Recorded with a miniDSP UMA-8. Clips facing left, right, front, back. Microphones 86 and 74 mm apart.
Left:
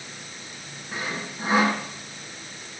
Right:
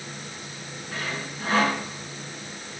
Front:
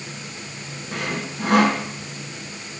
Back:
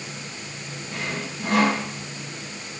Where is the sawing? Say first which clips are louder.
Left 1 dB, front 3 dB; 20° left, 3 m.